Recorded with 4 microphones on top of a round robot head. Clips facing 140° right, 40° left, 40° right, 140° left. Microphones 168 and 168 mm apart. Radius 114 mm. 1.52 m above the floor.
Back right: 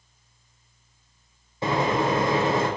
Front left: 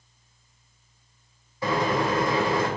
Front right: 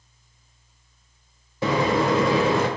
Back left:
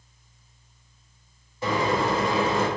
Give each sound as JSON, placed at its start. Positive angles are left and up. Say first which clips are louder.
{"t": 1.6, "sound": "a microwave", "louder": "back right 1 dB, front right 3 dB", "azimuth_deg": -75, "distance_m": 0.5}